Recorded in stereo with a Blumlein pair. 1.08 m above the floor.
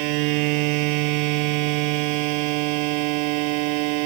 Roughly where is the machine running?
Ahead right.